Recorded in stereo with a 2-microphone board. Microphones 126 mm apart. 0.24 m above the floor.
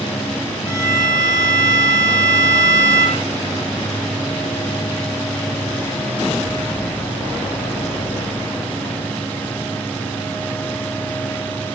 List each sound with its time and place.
0.7 s a violin: 20° right (ahead or behind), 5 m